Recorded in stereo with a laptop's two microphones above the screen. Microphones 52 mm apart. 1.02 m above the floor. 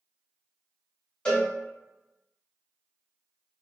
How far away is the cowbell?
About 1.5 m.